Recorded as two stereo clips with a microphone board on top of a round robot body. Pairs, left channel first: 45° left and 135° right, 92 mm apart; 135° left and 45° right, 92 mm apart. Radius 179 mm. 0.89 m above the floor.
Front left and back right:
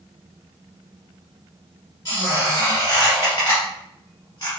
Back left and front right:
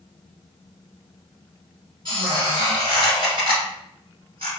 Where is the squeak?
10° right, 0.8 m.